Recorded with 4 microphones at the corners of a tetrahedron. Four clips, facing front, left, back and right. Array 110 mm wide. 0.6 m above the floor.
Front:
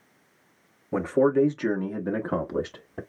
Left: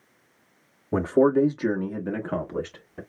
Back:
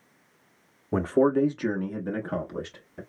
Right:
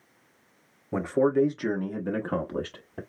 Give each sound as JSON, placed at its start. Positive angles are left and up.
{"t": 0.9, "sound": "a man speaking", "azimuth_deg": 130, "distance_m": 0.9}